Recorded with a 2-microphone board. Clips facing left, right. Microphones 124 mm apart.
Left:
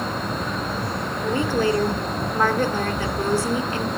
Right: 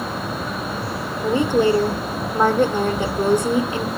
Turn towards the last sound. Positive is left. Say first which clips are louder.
# right 5 dB
turn(degrees=-20)  # may be behind; listen again after turning